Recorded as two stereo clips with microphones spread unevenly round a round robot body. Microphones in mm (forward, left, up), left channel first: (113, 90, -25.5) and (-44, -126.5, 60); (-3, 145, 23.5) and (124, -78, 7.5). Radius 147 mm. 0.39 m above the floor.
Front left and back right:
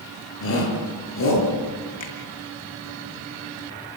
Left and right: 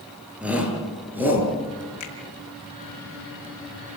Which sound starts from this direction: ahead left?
A shout, at 0.4 s.